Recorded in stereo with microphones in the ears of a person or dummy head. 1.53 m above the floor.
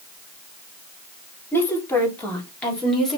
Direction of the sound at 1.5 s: 5° left (ahead or behind).